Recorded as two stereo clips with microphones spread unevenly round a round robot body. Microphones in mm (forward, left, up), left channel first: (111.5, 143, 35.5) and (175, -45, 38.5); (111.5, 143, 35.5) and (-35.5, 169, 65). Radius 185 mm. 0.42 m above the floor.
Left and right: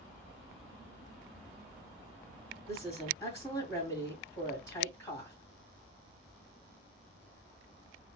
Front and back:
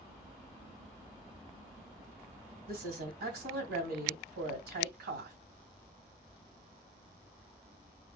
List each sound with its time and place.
2.7 s a woman speaking: 170° right, 2.5 m